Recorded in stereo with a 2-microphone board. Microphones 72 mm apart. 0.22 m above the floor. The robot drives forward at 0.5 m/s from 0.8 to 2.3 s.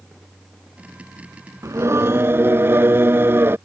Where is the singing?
45° right (ahead or behind); by 3.6 s 35° right (ahead or behind).